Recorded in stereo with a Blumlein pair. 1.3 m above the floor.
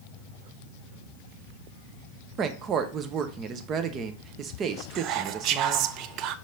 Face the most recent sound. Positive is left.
turn(degrees=-40)